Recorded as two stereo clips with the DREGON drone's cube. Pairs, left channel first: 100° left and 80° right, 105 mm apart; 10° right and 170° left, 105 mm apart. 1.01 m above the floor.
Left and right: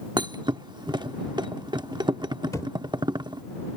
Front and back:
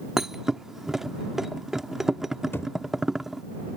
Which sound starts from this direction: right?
A thud, at 0.2 s.